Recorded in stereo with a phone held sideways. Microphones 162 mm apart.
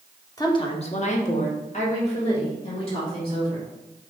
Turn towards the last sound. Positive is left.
turn(degrees=35)  # may be behind; listen again after turning